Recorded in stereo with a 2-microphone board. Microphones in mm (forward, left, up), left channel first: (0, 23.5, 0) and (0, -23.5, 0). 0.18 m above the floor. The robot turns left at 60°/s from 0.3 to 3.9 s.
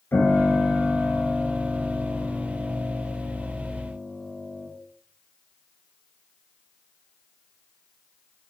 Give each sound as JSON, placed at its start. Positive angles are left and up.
{"t": 0.1, "sound": "a piano", "azimuth_deg": 60, "distance_m": 2.5}